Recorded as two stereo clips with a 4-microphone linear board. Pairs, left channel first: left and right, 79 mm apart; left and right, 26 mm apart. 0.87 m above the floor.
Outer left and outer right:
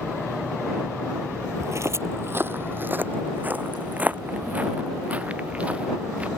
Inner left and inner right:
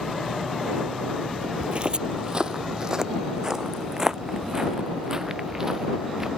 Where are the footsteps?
40° right (ahead or behind); by 6.3 s 15° right (ahead or behind).